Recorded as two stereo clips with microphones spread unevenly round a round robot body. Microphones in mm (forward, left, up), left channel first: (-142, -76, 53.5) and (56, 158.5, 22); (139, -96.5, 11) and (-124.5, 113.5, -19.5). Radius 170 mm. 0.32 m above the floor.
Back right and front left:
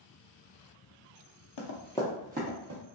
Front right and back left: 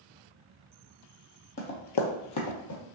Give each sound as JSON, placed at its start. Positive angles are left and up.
{"t": 1.6, "sound": "running footsteps", "azimuth_deg": -105, "distance_m": 0.7}